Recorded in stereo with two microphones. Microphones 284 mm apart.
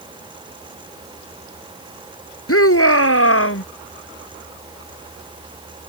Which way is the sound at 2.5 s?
55° left (ahead or behind).